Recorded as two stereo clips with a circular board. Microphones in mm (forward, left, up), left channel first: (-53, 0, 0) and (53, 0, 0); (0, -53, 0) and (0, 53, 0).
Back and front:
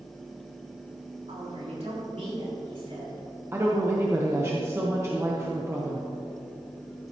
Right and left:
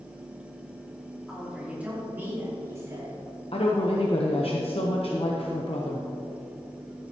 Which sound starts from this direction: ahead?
A woman speaking, at 1.3 s.